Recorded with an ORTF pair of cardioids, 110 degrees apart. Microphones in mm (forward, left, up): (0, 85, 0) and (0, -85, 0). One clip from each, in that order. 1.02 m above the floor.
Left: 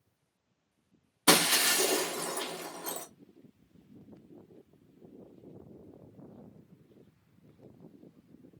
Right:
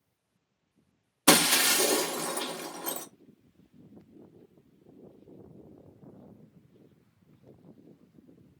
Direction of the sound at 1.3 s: 15° right.